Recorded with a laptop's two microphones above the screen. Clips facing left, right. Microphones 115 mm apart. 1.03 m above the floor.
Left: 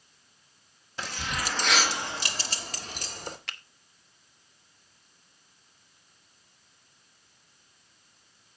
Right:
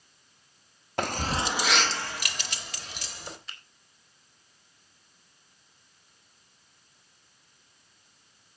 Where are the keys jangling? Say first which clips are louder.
Right 6 dB; 60° right (ahead or behind), 0.7 m; by 3.4 s 45° left (ahead or behind), 1.9 m.